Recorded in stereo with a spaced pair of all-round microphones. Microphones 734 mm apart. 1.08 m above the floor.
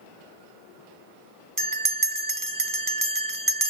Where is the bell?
30° right (ahead or behind), 0.8 m.